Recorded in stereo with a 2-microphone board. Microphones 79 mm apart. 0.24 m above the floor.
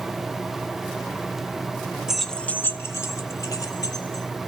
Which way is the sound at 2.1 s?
10° right (ahead or behind).